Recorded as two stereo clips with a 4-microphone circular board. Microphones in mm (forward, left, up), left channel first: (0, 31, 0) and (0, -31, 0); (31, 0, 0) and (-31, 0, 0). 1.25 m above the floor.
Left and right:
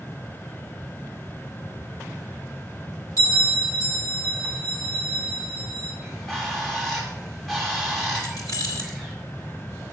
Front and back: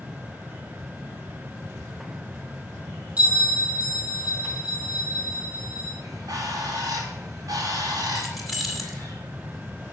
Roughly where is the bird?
Behind.